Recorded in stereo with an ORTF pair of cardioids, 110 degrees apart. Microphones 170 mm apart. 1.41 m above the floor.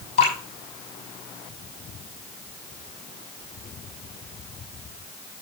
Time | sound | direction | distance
0.2 | dripping | 40° left | 6.5 m